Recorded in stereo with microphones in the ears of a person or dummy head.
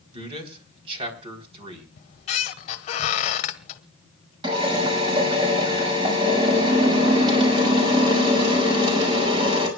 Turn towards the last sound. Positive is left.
turn(degrees=-25)  # may be behind; listen again after turning